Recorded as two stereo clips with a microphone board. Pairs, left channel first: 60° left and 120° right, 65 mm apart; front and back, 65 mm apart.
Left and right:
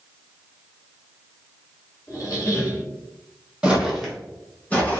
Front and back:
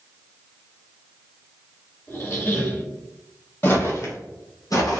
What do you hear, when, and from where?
2.1 s a squeak: 45° left, 1.3 m
3.6 s footsteps: 50° right, 0.8 m; by 5.0 s straight ahead, 1.1 m